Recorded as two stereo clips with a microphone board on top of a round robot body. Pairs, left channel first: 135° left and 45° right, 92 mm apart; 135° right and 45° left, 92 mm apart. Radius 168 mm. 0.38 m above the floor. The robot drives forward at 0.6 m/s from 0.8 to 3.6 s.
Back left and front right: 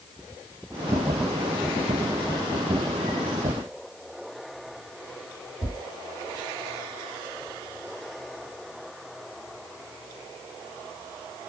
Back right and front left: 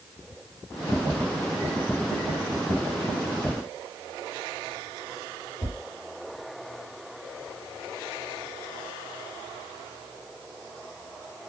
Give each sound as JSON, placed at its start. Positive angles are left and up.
{"t": 5.6, "sound": "tapping", "azimuth_deg": 175, "distance_m": 4.0}